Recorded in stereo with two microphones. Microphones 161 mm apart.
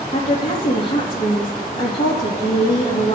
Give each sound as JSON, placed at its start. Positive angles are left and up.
{"t": 0.1, "sound": "a woman speaking", "side_deg": 35, "distance_m": 4.0}